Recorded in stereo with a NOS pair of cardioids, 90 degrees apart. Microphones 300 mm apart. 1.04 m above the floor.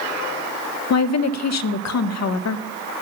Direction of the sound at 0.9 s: 65° left.